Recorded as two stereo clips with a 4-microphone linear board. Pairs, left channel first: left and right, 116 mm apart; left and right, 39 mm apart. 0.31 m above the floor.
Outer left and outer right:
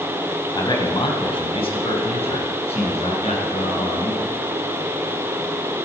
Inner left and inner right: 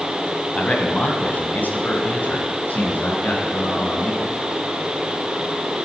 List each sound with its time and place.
0.6 s a man speaking: 40° left (ahead or behind), 1.7 m; by 4.3 s 70° left (ahead or behind), 4 m